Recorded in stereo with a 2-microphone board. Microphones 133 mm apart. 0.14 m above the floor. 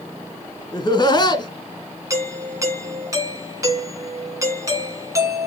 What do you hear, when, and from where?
0.7 s laughter: 35° left (ahead or behind), 1.6 m
2.1 s a doorbell: 25° right (ahead or behind), 1.7 m